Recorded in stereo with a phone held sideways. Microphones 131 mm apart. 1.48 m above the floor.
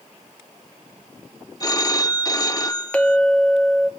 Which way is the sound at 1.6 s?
25° left (ahead or behind).